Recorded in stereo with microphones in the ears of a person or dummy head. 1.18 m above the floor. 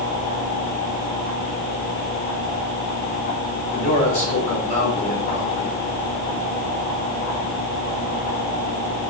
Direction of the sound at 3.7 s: 45° left (ahead or behind).